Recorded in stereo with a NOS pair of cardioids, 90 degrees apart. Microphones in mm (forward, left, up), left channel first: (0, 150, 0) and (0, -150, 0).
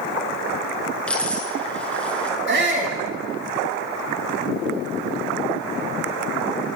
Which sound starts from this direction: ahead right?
A shout, at 2.5 s.